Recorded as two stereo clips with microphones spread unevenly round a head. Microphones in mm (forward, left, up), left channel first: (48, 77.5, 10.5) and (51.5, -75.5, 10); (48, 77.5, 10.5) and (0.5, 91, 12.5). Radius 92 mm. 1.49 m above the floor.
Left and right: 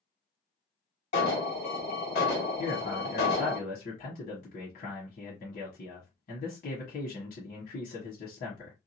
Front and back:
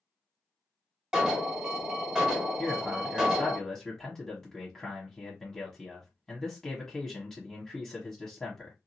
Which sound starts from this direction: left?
An alarm, at 1.1 s.